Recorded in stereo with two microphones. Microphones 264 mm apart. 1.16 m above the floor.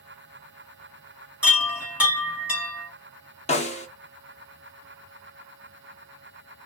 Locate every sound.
1.4 s a chime: 5° right (ahead or behind), 1.4 m
3.5 s a snare drum: 25° left (ahead or behind), 0.8 m